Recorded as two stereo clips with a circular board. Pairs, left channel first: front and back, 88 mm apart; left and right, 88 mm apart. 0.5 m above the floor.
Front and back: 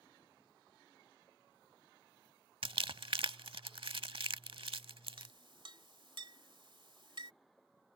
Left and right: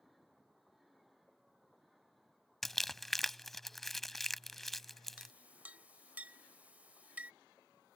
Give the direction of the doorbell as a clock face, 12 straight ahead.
I don't hear a doorbell.